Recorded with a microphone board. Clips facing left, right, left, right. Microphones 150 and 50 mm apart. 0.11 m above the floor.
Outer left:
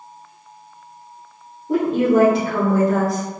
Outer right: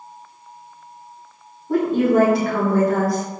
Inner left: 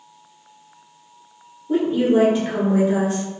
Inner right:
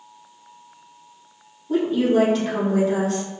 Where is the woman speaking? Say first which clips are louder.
Outer left 1 dB, inner left 2 dB; 25° left (ahead or behind), 1.4 m.